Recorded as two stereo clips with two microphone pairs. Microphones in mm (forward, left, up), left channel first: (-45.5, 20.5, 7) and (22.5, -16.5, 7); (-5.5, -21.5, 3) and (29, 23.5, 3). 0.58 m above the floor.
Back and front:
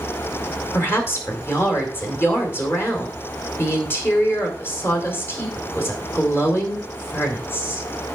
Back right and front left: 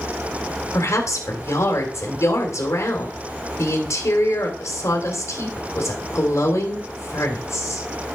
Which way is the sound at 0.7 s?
155° right.